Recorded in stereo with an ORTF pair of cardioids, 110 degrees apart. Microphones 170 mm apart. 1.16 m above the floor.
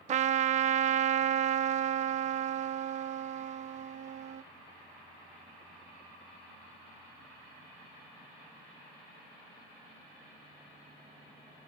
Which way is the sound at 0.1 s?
40° right.